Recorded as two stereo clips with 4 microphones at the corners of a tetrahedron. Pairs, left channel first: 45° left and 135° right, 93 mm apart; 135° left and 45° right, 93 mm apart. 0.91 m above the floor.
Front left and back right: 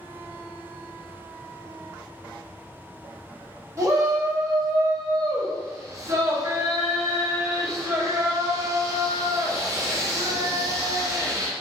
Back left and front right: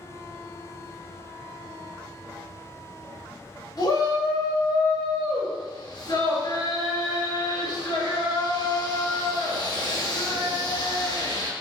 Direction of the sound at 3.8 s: 170° left.